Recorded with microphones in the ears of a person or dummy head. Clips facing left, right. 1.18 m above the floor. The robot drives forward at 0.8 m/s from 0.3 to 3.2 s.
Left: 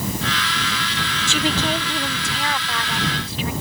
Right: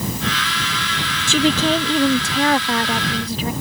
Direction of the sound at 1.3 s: 70° right (ahead or behind).